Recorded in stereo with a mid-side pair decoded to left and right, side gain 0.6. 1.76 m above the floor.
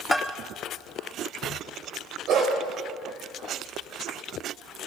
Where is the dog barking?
60° right, 4 m.